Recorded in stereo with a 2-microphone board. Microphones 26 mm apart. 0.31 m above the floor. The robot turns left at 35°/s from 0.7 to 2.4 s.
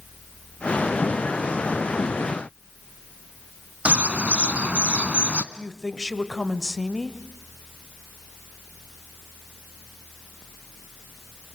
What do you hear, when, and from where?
3.9 s a bird: 65° right (ahead or behind), 1.1 m
5.5 s a woman speaking: 15° left (ahead or behind), 1.4 m